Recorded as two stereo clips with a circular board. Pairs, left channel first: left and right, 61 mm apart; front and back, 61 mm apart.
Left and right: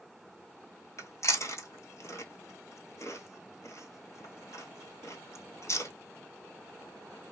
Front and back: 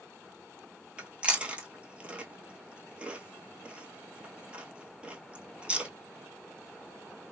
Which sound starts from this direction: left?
Chewing, at 1.0 s.